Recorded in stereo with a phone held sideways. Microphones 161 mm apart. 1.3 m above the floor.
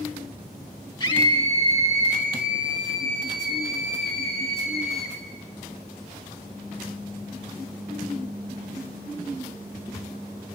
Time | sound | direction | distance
1.0 | a scream | 25° left (ahead or behind) | 1.9 m